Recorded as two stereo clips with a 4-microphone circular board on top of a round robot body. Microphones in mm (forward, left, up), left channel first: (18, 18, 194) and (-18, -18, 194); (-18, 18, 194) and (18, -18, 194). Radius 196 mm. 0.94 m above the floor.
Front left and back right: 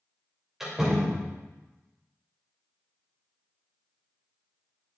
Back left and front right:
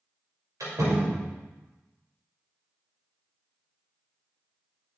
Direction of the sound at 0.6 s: 50° right.